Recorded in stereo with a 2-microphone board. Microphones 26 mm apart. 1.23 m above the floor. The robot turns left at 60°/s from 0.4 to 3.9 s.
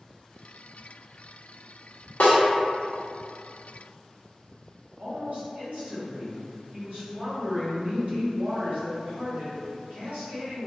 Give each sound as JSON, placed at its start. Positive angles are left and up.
{"t": 2.2, "sound": "a snare drum", "side_deg": 70, "distance_m": 0.8}
{"t": 5.0, "sound": "a woman speaking", "side_deg": -85, "distance_m": 1.8}